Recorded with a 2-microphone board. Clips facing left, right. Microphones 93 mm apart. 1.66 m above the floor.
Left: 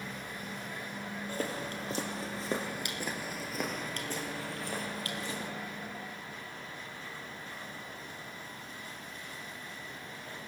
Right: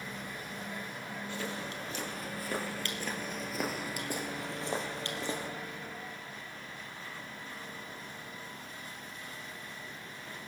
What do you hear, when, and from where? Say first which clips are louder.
1.3 s footsteps: left 3 dB; 40° left (ahead or behind), 2.5 m; by 5.5 s 35° right (ahead or behind), 2.5 m